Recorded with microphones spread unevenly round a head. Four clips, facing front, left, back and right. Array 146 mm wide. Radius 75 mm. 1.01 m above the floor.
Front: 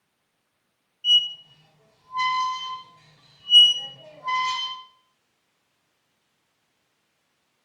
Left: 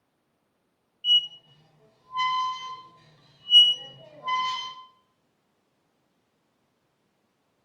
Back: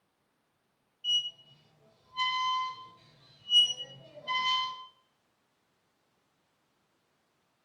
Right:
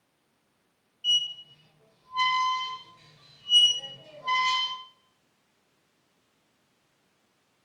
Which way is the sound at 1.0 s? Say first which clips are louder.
Left 3 dB, front 11 dB; 20° left.